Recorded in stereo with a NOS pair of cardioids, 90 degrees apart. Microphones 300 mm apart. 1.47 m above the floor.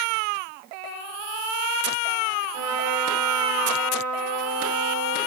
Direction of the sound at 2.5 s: 70° right.